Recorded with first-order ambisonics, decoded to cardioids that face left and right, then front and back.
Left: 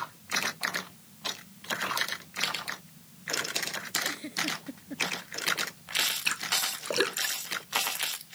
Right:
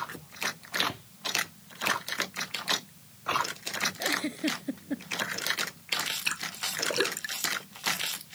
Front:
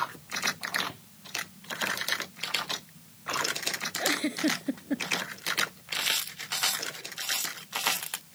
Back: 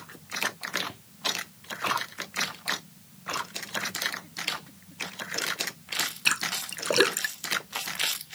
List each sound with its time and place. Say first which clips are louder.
4.0 s a giggle: right 2 dB, front 4 dB; 25° right
6.2 s a splash: left 3 dB, back 4 dB; 175° left